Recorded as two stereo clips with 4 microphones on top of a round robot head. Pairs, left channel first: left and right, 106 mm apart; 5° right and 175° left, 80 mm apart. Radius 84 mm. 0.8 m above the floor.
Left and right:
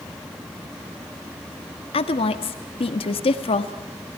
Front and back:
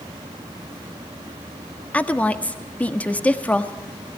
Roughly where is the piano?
No piano in this recording.